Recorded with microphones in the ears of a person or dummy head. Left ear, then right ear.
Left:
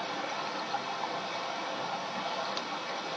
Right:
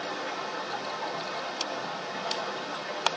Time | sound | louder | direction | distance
0.0 | running water | right 1 dB | 70° right (ahead or behind) | 1.7 m